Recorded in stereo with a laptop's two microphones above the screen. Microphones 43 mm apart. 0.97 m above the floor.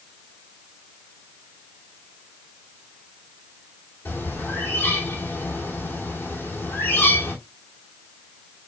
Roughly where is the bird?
Left.